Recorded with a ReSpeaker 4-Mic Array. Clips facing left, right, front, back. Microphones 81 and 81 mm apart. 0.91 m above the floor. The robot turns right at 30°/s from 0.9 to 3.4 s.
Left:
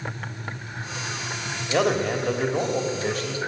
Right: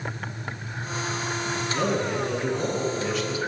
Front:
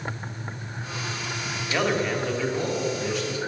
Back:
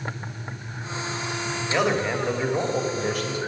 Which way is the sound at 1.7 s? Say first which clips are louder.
Left 5 dB, back 1 dB; 95° left.